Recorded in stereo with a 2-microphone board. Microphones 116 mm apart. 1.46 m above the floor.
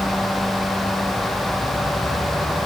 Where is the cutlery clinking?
No cutlery clinking in this recording.